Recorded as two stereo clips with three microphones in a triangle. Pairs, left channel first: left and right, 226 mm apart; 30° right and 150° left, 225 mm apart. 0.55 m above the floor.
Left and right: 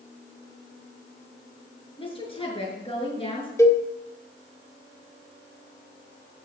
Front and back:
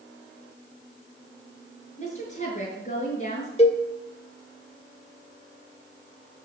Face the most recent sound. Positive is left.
turn(degrees=20)